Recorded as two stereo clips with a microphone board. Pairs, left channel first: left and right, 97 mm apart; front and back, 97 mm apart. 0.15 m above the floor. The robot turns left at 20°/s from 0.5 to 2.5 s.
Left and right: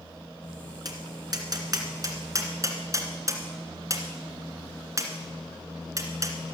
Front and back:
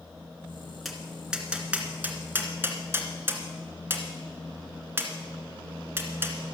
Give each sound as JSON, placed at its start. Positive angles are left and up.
{"t": 0.8, "sound": "tapping", "azimuth_deg": -90, "distance_m": 1.8}